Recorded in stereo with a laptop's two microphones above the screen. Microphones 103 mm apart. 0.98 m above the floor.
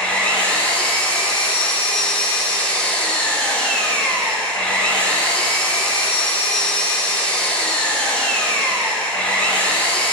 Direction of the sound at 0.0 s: 10° left (ahead or behind).